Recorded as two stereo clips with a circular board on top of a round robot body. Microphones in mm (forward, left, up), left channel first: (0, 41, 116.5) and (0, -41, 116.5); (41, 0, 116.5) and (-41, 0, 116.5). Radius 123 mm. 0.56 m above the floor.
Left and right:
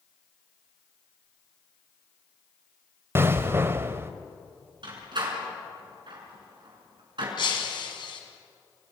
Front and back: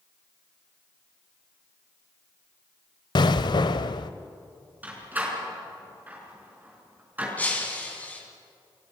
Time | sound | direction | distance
3.1 | an explosion | 30° right | 0.7 m
4.8 | a door slam | 110° right | 5 m
7.4 | breaking glass | 70° left | 3.5 m